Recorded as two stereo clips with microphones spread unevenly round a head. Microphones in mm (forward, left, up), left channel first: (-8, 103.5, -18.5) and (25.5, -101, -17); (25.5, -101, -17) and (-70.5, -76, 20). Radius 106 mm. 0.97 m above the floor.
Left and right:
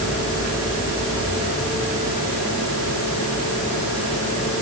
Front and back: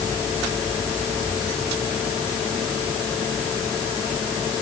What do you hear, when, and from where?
Only background noise.